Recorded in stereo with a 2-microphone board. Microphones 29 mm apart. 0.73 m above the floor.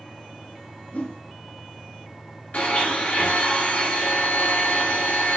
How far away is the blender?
About 2.5 m.